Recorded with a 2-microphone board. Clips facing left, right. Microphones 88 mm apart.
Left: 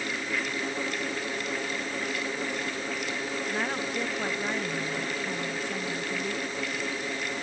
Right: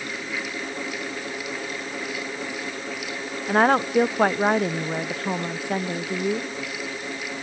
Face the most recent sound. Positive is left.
turn(degrees=-55)  # may be behind; listen again after turning